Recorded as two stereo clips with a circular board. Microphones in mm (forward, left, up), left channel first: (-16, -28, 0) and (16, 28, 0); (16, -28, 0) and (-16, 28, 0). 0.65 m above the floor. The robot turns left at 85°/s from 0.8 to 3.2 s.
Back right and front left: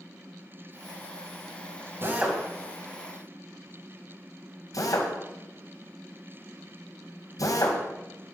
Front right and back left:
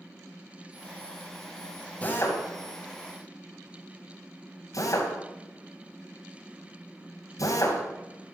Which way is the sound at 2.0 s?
10° left.